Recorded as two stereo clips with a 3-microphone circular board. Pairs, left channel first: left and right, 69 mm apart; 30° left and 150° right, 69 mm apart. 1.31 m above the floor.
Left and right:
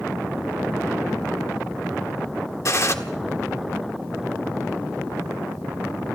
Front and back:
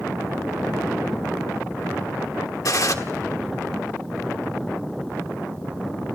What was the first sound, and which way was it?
A gunshot, 55° left.